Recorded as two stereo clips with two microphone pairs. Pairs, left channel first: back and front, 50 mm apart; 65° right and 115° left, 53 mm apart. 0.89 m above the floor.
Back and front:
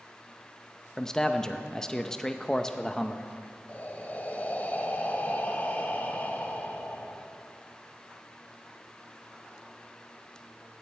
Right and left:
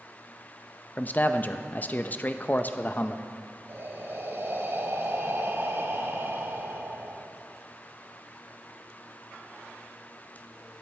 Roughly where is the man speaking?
Right.